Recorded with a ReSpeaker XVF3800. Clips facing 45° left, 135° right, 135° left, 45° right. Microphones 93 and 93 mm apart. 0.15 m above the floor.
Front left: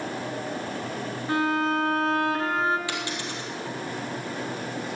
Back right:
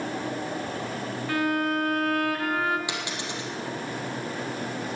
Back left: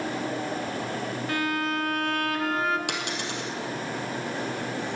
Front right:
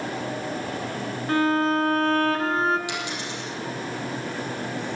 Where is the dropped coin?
155° left, 2.5 m.